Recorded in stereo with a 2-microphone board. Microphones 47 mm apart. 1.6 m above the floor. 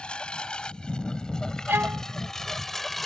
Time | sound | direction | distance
0.0 | a lawn mower | 20° left (ahead or behind) | ?
1.7 | a violin | 50° right (ahead or behind) | ?